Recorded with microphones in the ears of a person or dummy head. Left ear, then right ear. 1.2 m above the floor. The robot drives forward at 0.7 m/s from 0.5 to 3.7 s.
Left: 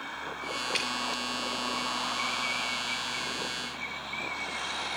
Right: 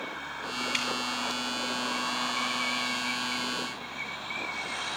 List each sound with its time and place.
0.7 s dripping: 10° right (ahead or behind), 3 m